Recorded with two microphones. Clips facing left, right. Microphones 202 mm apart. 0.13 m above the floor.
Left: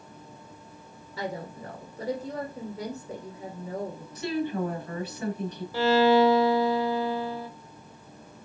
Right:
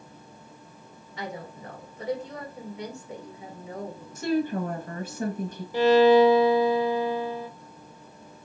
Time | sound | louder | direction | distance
1.2 | a woman speaking | left 3 dB | 35° left (ahead or behind) | 1.9 m
4.2 | a woman speaking | right 3 dB | 45° right (ahead or behind) | 1.5 m
5.7 | a violin | right 4 dB | 15° right (ahead or behind) | 0.7 m